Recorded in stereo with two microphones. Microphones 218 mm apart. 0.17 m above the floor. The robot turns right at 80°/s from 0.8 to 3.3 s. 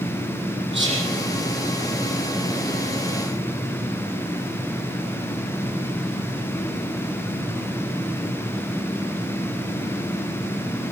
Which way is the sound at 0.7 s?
60° right (ahead or behind).